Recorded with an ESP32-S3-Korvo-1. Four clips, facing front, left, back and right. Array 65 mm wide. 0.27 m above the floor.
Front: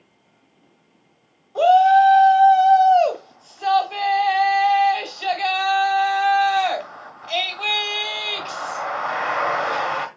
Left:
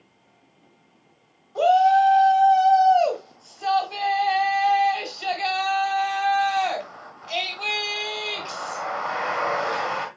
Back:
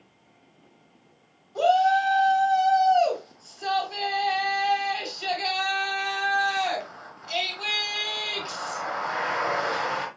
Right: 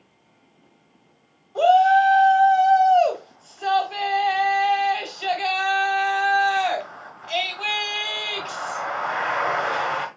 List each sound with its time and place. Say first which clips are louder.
1.6 s a shout: right 1 dB, front 7 dB; 25° right, 1.7 m